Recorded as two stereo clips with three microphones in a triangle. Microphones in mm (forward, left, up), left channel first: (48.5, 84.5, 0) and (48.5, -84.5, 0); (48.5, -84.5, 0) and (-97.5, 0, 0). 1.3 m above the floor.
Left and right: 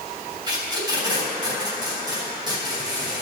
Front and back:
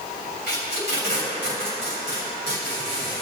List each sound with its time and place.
0.5 s tape being pulled: 25° right, 3 m